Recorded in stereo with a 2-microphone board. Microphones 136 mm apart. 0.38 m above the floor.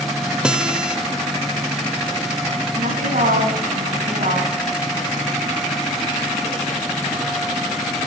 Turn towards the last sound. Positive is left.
turn(degrees=-75)  # may be behind; listen again after turning